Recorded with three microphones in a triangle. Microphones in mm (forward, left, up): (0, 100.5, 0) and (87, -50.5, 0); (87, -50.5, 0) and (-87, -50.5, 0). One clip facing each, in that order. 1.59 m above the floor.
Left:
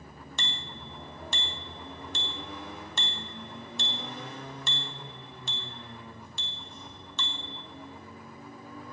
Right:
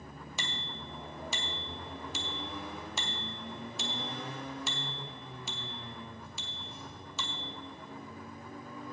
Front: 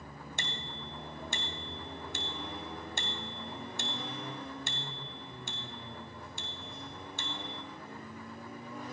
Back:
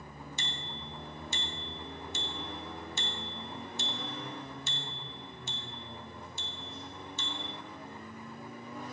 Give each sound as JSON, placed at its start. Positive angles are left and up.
{"t": 0.4, "sound": "a bicycle bell", "azimuth_deg": 25, "distance_m": 2.0}